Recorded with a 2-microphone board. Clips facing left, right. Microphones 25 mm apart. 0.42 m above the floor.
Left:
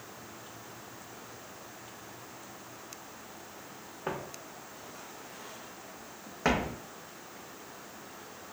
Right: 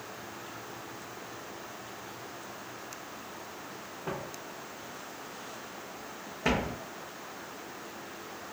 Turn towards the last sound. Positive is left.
turn(degrees=35)  # may be behind; listen again after turning